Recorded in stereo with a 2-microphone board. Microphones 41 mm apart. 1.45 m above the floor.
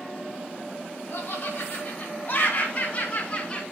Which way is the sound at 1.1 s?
60° left (ahead or behind).